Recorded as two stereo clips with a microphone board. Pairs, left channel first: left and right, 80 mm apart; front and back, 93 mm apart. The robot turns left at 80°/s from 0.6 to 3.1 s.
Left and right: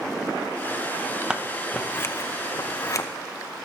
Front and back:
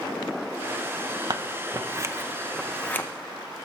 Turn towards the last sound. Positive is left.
turn(degrees=50)